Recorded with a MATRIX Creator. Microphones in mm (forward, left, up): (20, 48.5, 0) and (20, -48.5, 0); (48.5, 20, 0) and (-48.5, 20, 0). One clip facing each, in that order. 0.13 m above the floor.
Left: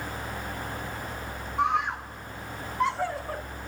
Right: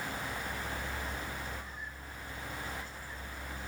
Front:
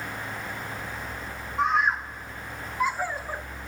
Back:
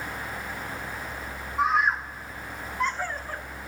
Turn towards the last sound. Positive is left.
turn(degrees=80)